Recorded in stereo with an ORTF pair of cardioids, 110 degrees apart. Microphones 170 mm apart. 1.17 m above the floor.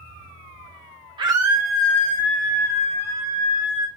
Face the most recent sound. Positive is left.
turn(degrees=50)